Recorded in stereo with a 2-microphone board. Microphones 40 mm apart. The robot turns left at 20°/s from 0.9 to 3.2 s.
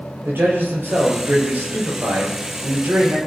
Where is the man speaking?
70° right, 5.5 m; by 3.2 s 115° right, 5.5 m.